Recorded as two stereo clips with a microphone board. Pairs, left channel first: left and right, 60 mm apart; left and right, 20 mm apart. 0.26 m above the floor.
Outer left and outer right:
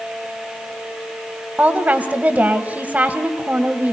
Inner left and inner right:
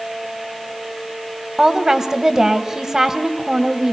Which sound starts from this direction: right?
A woman speaking, at 1.6 s.